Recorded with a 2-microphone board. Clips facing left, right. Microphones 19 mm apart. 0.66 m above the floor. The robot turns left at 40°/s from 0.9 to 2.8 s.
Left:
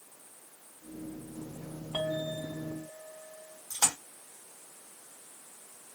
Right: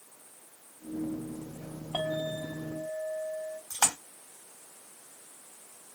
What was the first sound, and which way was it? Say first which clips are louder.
A clink: right 1 dB; 30° right.